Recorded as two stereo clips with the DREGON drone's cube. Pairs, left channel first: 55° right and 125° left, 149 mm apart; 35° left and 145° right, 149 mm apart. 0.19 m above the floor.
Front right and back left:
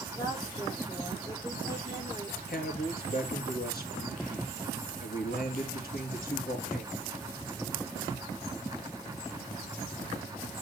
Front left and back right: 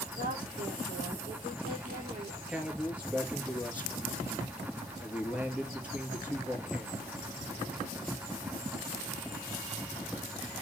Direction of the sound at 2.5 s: 65° right.